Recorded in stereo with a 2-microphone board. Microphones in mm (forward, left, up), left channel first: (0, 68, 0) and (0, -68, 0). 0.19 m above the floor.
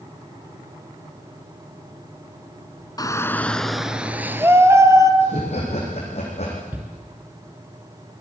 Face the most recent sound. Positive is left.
turn(degrees=-15)  # may be behind; listen again after turning